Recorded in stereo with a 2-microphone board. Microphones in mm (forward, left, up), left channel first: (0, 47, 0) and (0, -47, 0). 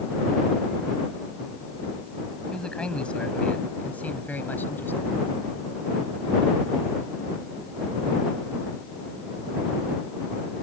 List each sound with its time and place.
2.5 s a man speaking: 10° left (ahead or behind); by 5.2 s 20° left (ahead or behind)